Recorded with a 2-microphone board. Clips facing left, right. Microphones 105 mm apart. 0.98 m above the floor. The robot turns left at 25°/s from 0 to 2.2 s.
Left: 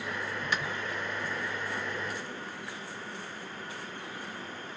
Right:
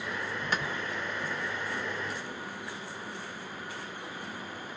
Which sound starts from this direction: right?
A clap, at 0.5 s.